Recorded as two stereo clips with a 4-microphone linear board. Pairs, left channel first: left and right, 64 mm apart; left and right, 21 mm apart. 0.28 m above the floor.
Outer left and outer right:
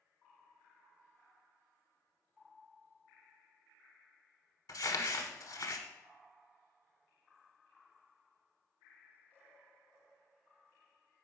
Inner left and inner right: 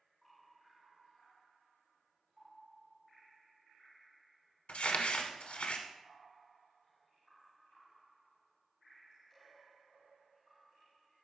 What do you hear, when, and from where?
4.7 s crumpling: 70° left (ahead or behind), 0.9 m